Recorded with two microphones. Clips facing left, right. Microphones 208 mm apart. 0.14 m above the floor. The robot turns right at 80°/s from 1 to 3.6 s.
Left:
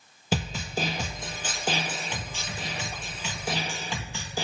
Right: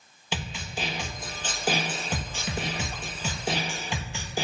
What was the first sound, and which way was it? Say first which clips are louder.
A snare drum: left 5 dB; 135° left.